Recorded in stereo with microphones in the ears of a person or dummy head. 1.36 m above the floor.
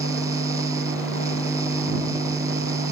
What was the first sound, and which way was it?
A fan, 25° right (ahead or behind).